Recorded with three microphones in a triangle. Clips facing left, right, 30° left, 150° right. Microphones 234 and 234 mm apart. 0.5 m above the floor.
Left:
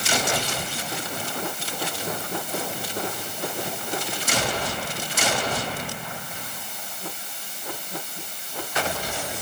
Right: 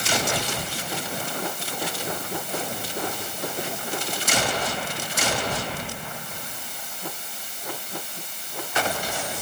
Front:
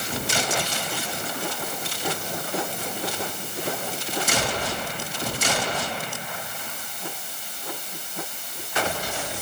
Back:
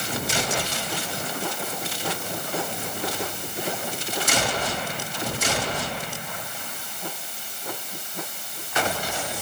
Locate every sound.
Only background noise.